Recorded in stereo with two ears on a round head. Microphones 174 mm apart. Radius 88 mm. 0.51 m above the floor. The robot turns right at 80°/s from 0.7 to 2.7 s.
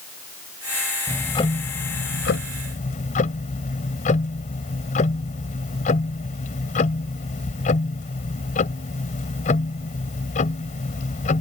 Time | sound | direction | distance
1.1 | ticking | 5° left | ?